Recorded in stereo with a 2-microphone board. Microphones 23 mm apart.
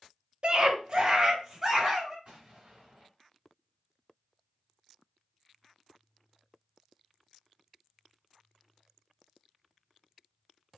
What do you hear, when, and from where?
0.4 s a scream: 45° right (ahead or behind), 0.6 m; by 2.1 s 20° right (ahead or behind), 1.5 m
2.2 s an explosion: 50° right (ahead or behind), 2 m